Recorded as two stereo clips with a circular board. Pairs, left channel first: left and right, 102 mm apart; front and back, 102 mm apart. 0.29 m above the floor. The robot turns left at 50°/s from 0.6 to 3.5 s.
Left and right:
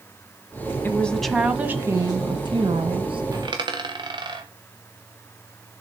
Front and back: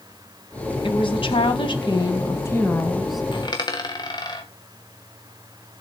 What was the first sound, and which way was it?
A woman speaking, 20° left.